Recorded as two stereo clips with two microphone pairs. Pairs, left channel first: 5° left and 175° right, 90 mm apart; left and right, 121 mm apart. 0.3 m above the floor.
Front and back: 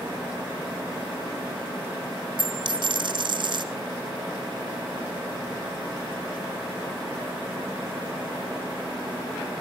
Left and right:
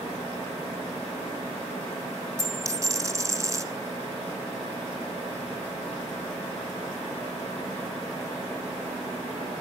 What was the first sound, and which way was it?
A dropped coin, 155° right.